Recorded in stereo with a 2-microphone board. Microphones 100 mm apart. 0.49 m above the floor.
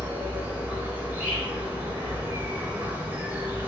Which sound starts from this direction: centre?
An insect, at 0.0 s.